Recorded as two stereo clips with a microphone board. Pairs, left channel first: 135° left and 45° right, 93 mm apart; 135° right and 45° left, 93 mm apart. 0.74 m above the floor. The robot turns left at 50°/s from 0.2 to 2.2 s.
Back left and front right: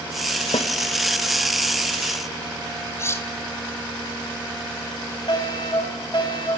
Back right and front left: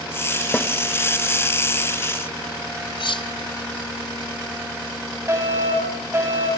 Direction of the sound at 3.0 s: 165° right.